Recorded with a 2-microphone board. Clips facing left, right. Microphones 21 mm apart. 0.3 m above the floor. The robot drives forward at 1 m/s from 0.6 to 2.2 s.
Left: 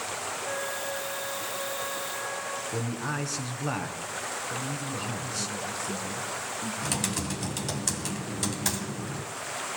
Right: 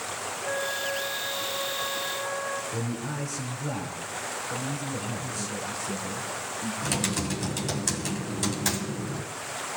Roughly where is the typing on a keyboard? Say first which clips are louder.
Right 3 dB; centre.